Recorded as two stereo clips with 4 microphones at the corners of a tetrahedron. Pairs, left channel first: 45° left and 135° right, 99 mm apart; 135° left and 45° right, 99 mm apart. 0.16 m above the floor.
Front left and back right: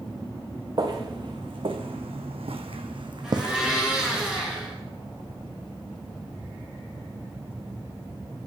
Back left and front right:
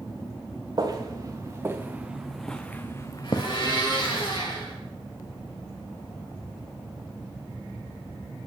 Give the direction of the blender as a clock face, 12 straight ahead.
7 o'clock.